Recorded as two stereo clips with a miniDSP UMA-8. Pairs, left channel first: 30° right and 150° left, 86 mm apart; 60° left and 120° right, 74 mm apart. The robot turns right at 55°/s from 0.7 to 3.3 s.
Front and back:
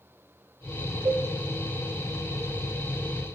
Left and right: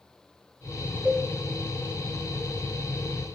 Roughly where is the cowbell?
Behind.